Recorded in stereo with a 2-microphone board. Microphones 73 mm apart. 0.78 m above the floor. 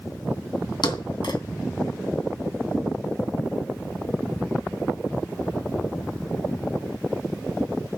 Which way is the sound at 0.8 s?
80° left.